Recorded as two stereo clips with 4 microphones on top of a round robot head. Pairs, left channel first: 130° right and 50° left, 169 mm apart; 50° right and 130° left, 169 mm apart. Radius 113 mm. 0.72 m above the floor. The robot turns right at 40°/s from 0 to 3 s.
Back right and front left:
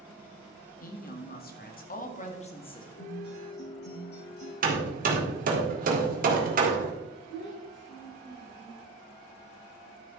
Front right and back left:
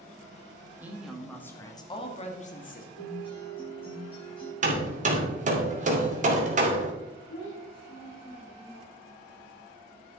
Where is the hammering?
85° left, 2.5 m.